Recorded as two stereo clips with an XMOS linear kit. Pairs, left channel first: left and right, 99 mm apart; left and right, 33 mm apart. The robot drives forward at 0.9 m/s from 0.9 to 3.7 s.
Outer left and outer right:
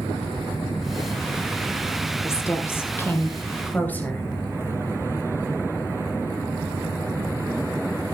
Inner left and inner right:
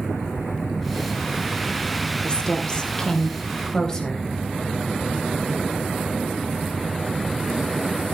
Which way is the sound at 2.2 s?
30° left (ahead or behind).